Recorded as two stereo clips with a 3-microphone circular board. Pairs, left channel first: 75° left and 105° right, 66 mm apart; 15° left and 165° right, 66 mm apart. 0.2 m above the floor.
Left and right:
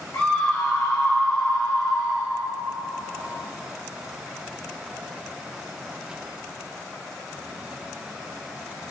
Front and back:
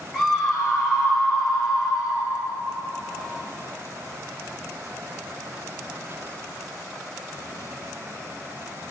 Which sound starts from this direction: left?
A scream, at 0.1 s.